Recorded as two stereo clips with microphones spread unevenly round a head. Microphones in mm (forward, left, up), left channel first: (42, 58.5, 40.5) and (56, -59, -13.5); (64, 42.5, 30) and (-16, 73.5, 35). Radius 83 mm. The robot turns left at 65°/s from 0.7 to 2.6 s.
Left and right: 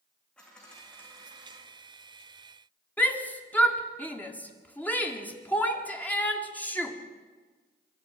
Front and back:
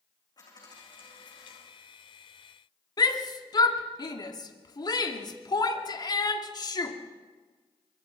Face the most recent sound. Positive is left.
turn(degrees=20)